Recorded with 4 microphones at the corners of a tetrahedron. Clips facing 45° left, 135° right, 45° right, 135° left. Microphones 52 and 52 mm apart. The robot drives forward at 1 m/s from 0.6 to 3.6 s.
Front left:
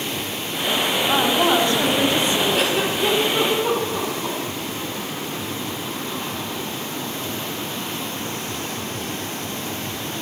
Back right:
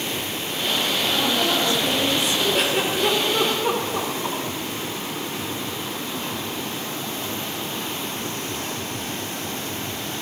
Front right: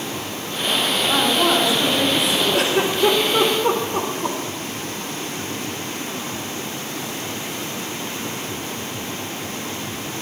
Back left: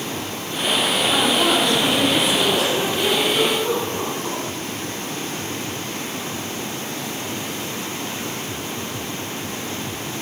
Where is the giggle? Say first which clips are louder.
Front left 1 dB, front right 2 dB; 45° right, 5 m; by 4.4 s 55° right, 4 m.